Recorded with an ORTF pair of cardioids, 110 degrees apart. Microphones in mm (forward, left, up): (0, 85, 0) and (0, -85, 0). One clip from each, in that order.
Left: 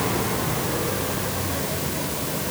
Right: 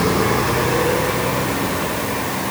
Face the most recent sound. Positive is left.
No sound to turn to.